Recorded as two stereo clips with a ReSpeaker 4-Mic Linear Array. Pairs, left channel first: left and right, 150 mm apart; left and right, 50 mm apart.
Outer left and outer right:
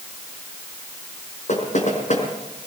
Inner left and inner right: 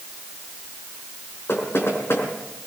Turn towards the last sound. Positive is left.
turn(degrees=55)  # may be behind; listen again after turning